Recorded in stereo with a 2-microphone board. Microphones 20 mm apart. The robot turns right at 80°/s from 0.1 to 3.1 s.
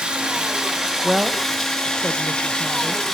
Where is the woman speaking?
25° right (ahead or behind), 0.8 m; by 3.0 s 5° left (ahead or behind), 0.8 m.